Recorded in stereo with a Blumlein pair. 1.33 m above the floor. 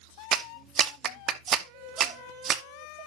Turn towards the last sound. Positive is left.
turn(degrees=-30)